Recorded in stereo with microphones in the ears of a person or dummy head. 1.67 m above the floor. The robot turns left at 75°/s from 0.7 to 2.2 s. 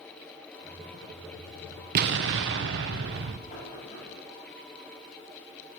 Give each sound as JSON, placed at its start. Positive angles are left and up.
{"t": 1.9, "sound": "an explosion", "side_deg": -55, "distance_m": 0.7}
{"t": 3.5, "sound": "knocking", "side_deg": 35, "distance_m": 8.5}